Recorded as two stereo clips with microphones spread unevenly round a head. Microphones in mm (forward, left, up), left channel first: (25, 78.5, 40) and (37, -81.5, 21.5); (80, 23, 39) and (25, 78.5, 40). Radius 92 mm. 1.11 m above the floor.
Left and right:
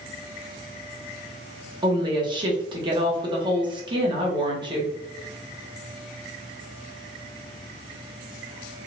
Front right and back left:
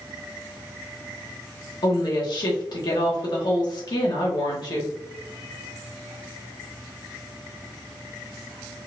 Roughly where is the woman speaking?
Ahead right.